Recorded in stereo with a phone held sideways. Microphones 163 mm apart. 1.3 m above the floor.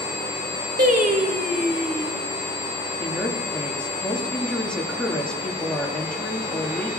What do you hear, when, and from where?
0.8 s singing: 65° right (ahead or behind), 1.8 m
3.0 s a woman speaking: 5° left (ahead or behind), 2.5 m